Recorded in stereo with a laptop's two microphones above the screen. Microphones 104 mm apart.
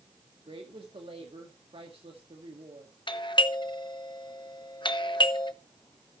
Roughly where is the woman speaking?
Right.